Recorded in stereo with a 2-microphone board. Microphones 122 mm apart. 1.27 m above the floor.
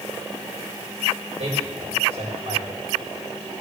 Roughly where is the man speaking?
Right.